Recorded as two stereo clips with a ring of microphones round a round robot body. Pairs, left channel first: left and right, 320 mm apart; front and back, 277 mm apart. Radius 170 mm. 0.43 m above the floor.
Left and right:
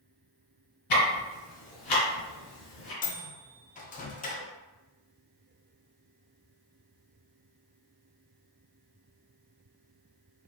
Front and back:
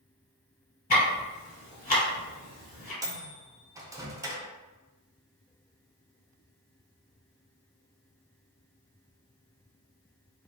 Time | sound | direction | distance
0.9 | ticking | 60° left | 1.3 m
3.0 | a microwave | 115° left | 0.5 m